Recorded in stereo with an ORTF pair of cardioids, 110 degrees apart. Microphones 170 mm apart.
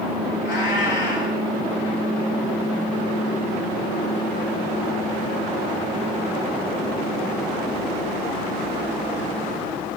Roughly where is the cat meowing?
Ahead left.